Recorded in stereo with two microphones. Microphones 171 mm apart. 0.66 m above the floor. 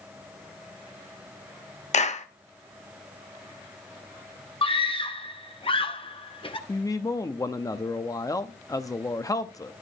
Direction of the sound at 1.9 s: 40° left (ahead or behind).